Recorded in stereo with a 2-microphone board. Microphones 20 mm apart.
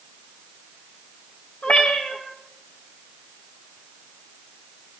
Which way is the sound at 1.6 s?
65° left (ahead or behind).